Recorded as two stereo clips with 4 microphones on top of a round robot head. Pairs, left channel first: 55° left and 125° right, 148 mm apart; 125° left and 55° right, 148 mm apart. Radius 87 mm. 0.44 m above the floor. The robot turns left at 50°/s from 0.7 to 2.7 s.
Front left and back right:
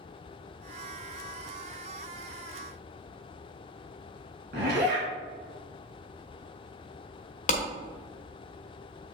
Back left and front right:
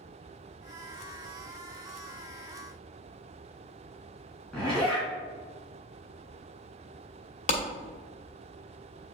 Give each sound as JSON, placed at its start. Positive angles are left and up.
{"t": 4.5, "sound": "a zipper", "azimuth_deg": -150, "distance_m": 3.0}
{"t": 7.5, "sound": "a clap", "azimuth_deg": 90, "distance_m": 1.3}